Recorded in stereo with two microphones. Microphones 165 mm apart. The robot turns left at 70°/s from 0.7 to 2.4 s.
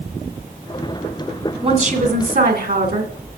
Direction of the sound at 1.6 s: 35° right.